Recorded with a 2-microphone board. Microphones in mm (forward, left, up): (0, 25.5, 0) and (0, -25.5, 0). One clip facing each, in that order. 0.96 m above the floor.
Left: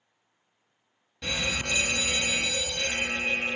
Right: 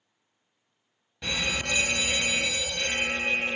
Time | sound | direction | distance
1.2 | a fire alarm | 10° right (ahead or behind) | 1.3 m